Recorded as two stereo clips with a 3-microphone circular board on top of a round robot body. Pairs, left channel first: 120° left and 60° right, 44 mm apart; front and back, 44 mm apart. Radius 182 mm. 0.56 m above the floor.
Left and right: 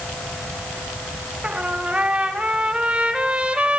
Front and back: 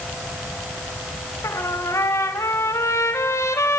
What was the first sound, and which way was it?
A trumpet, 5° left.